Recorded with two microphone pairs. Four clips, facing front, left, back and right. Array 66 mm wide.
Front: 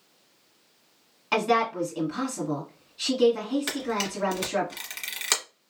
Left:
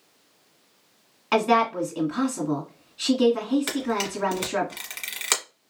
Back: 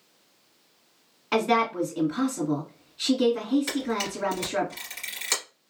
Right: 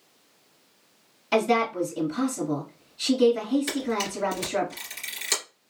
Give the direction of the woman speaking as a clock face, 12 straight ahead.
9 o'clock.